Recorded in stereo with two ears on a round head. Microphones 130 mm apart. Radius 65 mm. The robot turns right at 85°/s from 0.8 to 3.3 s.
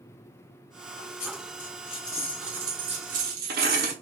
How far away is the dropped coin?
About 0.7 m.